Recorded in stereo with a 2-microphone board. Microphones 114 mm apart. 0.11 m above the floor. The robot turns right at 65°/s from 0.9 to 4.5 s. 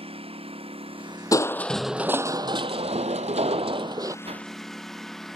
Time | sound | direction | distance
0.0 | a lawn mower | 55° right | ?
1.3 | crushing | 150° left | ?
4.2 | a whoosh | 60° right (ahead or behind) | ?